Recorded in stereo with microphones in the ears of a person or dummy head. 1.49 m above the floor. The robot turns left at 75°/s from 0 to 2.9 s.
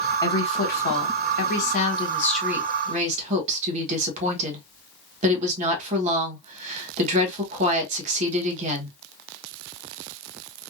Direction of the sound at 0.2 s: 165° left.